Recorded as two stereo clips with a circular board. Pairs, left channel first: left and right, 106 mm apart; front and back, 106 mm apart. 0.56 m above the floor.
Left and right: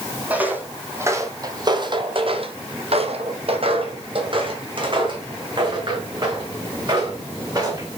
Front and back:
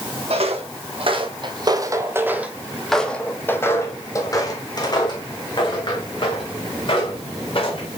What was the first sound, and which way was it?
Footsteps, 165° right.